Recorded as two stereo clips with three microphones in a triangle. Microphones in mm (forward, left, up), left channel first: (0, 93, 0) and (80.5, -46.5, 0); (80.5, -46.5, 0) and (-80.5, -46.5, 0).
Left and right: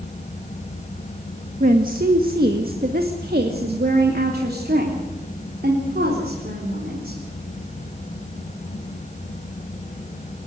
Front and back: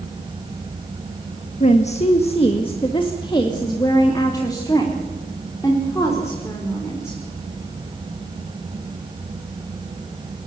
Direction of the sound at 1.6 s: 40° right.